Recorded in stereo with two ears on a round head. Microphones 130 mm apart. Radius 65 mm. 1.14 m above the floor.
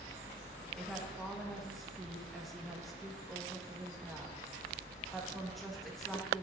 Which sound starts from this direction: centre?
A woman speaking, at 0.8 s.